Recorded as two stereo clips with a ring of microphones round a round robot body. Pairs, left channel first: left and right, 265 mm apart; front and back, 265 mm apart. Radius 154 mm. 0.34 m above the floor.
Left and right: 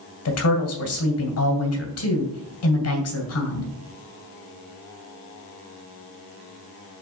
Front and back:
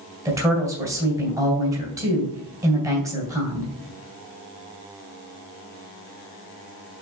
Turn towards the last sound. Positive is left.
turn(degrees=100)